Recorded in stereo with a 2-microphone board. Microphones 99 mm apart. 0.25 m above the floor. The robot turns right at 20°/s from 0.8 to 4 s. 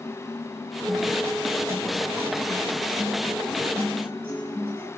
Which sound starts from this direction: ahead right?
A guitar, at 0.8 s.